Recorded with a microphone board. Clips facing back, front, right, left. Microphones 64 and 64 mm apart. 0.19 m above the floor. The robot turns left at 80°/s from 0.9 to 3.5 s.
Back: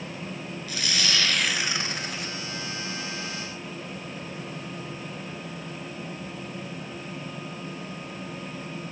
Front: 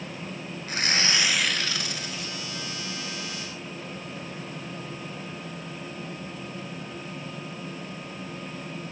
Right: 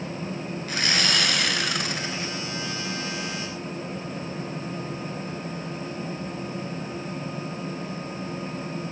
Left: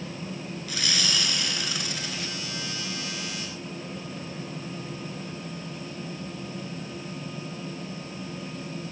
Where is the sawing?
45° right, 0.5 m; by 2.3 s 160° right, 0.5 m.